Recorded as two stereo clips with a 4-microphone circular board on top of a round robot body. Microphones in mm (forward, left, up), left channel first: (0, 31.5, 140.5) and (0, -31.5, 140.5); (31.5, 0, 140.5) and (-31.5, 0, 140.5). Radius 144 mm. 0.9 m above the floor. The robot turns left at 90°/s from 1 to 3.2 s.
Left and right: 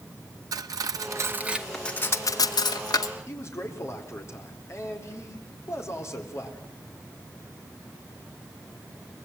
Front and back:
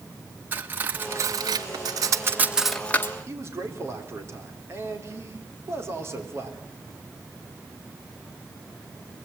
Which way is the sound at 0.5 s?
120° right.